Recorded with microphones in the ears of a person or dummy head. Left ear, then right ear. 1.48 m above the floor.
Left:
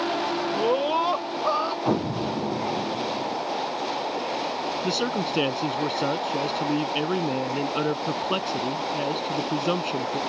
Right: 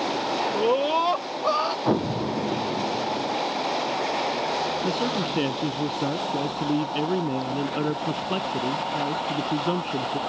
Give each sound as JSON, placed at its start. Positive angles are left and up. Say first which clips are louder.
{"t": 0.6, "sound": "a scream", "louder": "right 1 dB", "side_deg": 0}
{"t": 1.9, "sound": "an explosion", "louder": "right 1 dB", "side_deg": 0}
{"t": 4.8, "sound": "a man speaking", "louder": "even", "side_deg": 45}